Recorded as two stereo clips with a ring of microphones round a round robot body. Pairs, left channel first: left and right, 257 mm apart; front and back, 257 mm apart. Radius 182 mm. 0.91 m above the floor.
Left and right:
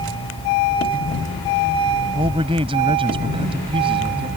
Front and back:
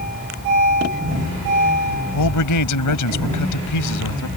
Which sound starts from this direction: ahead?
A man speaking, at 2.1 s.